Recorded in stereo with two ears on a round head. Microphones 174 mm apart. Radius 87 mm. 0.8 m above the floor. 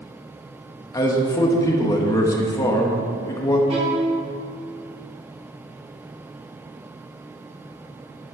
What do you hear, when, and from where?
0.9 s a man speaking: 20° left (ahead or behind), 1.0 m
3.7 s a violin: 30° right (ahead or behind), 1.5 m